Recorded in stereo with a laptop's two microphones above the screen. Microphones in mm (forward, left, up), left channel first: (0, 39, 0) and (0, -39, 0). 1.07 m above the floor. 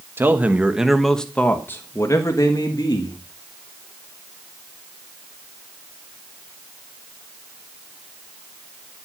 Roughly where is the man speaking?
Right.